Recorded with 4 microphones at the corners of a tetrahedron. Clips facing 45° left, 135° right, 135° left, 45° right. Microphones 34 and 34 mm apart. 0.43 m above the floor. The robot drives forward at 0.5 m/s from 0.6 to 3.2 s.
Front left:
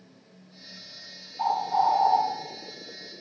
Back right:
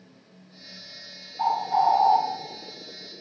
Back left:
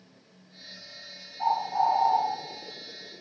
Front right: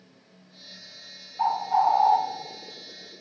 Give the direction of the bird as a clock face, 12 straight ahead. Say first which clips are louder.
Back right 2 dB, front right 3 dB; 2 o'clock.